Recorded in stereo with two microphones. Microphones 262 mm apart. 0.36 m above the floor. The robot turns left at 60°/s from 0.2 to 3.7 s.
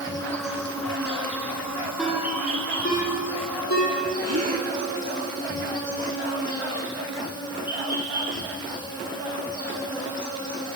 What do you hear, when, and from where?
0.0 s an insect: 15° left, 6 m; by 10.8 s 165° left, 6 m
2.0 s a ringtone: 5° right (ahead or behind), 9 m; by 3.9 s 80° left, 9 m
4.2 s a gasp: 60° right (ahead or behind), 4.5 m